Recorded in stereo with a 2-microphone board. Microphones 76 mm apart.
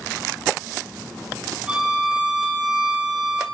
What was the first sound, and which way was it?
A violin, 15° right (ahead or behind).